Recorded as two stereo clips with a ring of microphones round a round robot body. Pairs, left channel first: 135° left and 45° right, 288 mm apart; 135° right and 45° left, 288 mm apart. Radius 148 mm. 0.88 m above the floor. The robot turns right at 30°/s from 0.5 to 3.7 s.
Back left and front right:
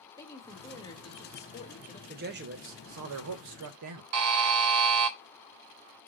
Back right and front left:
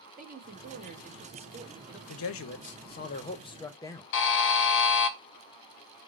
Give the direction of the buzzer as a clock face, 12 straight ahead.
3 o'clock.